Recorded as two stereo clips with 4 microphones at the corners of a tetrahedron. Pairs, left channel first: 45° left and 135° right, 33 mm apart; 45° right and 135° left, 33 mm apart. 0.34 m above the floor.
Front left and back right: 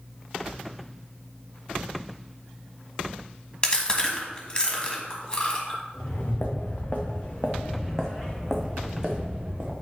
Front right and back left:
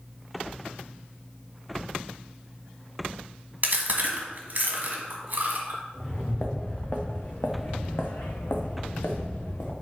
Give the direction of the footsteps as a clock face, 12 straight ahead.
11 o'clock.